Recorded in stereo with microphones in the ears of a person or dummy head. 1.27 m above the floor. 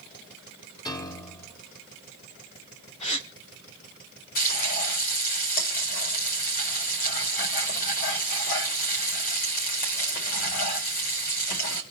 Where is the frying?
45° left (ahead or behind), 4.5 m.